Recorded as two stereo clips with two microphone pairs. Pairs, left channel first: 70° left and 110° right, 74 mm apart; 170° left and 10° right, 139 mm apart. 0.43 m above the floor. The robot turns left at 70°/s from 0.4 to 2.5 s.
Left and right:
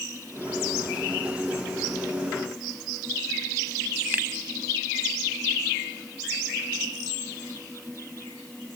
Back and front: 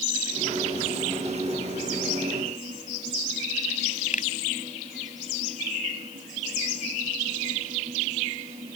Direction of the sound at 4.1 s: 175° right.